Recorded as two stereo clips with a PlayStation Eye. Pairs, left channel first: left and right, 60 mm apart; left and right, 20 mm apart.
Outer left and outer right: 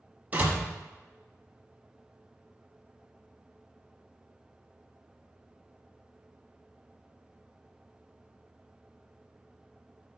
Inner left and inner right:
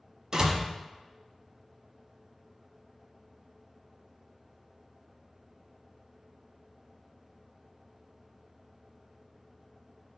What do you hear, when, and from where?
0.3 s a door slam: 25° right (ahead or behind), 1.1 m